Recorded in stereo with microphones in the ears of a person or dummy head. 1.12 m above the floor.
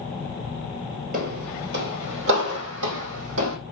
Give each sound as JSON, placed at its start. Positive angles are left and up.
{"t": 1.1, "sound": "footsteps", "side_deg": -40, "distance_m": 1.5}